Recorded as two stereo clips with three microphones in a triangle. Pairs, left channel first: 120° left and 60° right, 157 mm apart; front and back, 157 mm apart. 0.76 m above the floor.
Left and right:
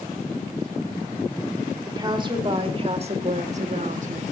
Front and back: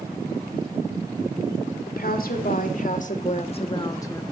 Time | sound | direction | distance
1.9 | a woman speaking | straight ahead | 2.5 m